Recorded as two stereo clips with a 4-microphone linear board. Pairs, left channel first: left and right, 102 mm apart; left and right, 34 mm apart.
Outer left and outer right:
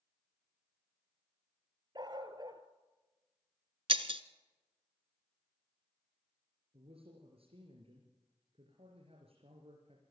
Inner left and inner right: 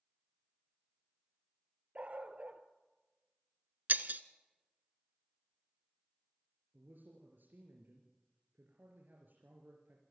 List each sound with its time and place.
1.9 s a dog barking: 45° right (ahead or behind), 1.8 m
3.9 s breaking glass: 65° right (ahead or behind), 1.0 m
6.7 s a man speaking: 70° right (ahead or behind), 3.5 m